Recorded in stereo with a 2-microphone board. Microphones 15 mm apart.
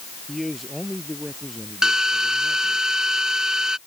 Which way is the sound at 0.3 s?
10° left (ahead or behind).